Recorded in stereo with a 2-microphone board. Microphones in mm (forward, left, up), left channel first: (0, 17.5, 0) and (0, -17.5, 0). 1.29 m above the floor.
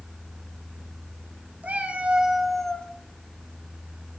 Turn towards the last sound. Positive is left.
turn(degrees=25)  # may be behind; listen again after turning